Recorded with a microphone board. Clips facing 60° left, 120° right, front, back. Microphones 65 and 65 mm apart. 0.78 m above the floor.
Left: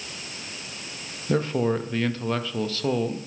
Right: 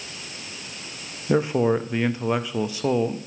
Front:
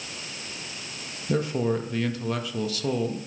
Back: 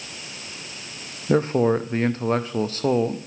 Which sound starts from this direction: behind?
A man speaking, at 1.3 s.